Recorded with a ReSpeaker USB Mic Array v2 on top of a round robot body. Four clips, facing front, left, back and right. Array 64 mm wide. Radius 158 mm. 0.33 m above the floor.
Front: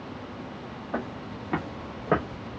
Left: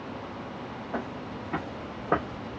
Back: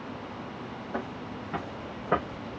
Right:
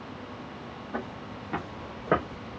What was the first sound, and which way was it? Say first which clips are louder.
Footsteps: left 1 dB, front 3 dB; 10° left.